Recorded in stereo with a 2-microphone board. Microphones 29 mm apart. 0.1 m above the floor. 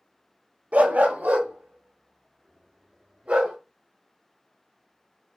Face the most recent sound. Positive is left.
turn(degrees=-50)  # may be behind; listen again after turning